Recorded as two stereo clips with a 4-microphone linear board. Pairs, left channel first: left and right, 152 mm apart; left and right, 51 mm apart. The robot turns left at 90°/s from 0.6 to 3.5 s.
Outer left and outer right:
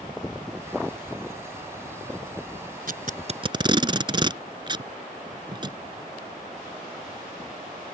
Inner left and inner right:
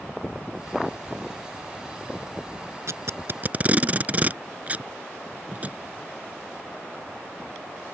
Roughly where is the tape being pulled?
Right.